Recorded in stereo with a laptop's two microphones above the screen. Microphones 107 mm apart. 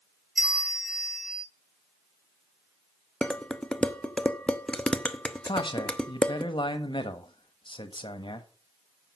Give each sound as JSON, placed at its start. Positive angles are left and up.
{"t": 0.4, "sound": "a bell", "side_deg": -5, "distance_m": 1.4}
{"t": 3.2, "sound": "dishes clattering", "side_deg": 10, "distance_m": 0.5}
{"t": 5.5, "sound": "a man speaking", "side_deg": 50, "distance_m": 1.3}